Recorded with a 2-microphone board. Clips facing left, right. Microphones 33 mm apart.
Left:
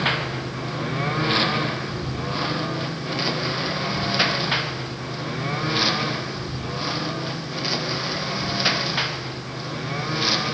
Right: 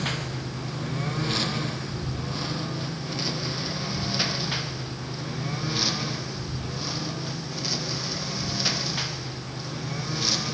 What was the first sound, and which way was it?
A lawn mower, 40° left (ahead or behind).